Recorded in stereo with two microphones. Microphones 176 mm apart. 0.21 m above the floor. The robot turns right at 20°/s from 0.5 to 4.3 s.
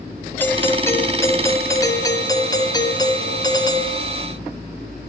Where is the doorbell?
10° left (ahead or behind), 2.0 m; by 4.0 s 20° left (ahead or behind), 2.0 m.